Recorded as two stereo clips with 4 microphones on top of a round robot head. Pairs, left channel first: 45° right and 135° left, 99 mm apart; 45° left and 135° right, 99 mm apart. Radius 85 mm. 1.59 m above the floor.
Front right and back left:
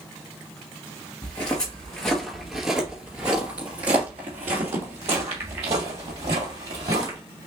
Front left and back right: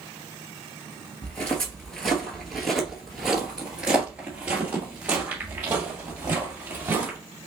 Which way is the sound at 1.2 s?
20° right.